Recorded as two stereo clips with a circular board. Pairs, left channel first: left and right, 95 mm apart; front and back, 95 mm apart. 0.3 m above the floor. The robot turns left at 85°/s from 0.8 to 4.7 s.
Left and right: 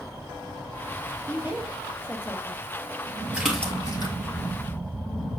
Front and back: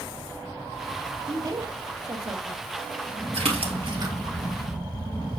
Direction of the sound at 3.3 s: 165° right.